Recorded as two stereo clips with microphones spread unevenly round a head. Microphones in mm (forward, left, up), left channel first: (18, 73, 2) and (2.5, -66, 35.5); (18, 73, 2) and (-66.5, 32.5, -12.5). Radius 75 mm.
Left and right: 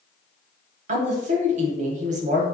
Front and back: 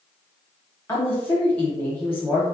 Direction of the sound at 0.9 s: 55° right.